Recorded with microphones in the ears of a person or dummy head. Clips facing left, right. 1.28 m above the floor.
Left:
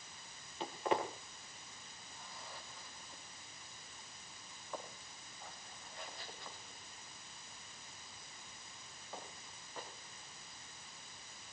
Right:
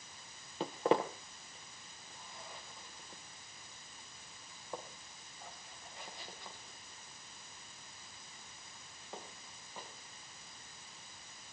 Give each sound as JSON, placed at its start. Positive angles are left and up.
{"t": 0.6, "sound": "footsteps", "side_deg": -35, "distance_m": 1.7}